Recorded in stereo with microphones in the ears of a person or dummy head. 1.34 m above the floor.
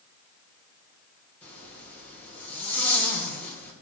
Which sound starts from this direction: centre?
A zipper, at 1.4 s.